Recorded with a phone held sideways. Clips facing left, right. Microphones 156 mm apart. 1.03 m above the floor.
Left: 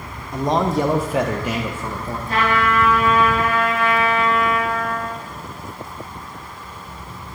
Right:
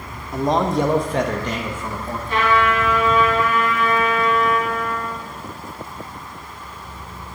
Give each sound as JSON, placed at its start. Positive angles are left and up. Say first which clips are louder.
{"t": 0.3, "sound": "a man speaking", "louder": "even", "side_deg": -5, "distance_m": 0.6}
{"t": 2.3, "sound": "a trumpet", "louder": "right 1 dB", "side_deg": 40, "distance_m": 2.5}